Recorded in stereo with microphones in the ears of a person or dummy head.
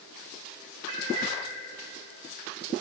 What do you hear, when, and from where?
0.9 s a cat meowing: 25° right (ahead or behind), 0.9 m